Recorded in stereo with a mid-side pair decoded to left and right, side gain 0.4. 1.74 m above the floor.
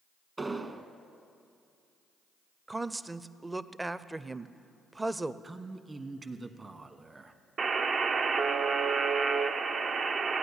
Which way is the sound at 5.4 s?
30° right.